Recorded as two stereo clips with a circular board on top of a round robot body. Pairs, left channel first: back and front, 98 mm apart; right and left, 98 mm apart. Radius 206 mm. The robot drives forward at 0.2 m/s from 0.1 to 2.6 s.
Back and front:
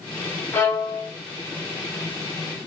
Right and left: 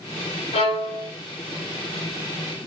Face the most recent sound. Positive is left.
turn(degrees=-140)